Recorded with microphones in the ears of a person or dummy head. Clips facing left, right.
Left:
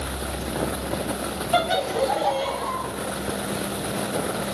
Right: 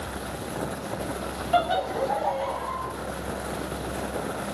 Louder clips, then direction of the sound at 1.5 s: Left 1 dB; 25° left (ahead or behind).